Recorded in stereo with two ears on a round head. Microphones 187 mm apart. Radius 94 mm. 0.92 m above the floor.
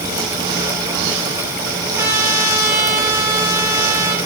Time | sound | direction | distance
2.0 | a trumpet | 15° right (ahead or behind) | 7 m